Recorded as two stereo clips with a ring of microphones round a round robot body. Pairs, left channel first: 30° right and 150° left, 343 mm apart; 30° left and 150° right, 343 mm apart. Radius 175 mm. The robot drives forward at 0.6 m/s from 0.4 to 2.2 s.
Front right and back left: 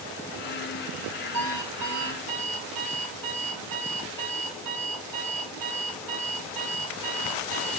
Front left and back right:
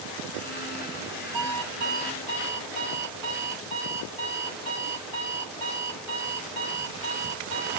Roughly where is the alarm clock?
Behind.